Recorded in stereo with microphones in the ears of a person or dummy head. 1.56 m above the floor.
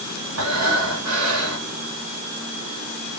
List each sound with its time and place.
0.4 s breathing: 80° right, 1.3 m